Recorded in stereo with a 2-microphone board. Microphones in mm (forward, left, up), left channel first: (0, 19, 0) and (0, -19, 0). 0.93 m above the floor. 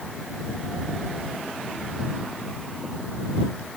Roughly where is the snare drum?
No snare drum in this recording.